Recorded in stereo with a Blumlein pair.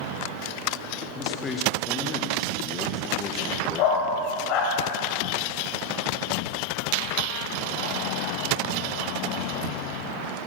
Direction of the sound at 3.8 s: 40° left.